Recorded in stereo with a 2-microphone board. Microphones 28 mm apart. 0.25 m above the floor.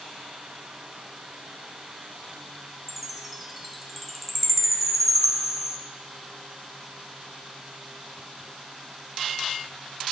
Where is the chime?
5° right (ahead or behind), 0.8 m.